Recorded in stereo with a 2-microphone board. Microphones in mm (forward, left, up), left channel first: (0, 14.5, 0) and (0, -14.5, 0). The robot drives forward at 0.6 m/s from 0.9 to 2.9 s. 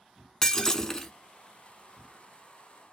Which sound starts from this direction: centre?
Breaking glass, at 0.4 s.